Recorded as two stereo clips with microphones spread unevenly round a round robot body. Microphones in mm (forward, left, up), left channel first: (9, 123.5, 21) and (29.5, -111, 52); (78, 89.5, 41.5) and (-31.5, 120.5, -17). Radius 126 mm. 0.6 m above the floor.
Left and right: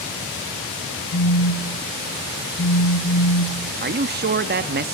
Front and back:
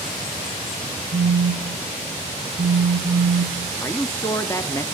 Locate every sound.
1.1 s a phone buzzing: 145° left, 2.5 m
3.8 s a man speaking: 115° right, 0.7 m